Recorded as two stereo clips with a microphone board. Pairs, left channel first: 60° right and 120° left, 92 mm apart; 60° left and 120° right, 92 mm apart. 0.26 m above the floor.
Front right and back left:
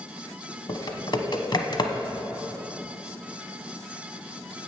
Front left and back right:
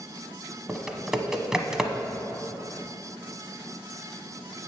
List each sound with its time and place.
0.7 s typing on a keyboard: 40° right, 1.0 m